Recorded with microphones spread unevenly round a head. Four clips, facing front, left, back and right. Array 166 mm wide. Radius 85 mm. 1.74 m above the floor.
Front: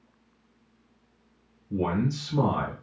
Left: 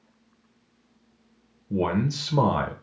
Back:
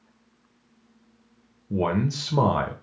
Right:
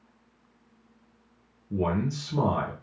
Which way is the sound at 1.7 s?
150° left.